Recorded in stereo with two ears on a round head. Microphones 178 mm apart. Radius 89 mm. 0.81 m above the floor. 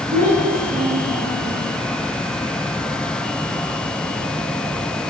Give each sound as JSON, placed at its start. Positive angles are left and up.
{"t": 0.1, "sound": "a child speaking", "side_deg": -45, "distance_m": 6.0}